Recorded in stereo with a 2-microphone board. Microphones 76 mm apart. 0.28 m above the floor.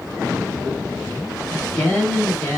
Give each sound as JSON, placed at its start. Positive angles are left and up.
{"t": 1.5, "sound": "a woman speaking", "side_deg": 10, "distance_m": 1.4}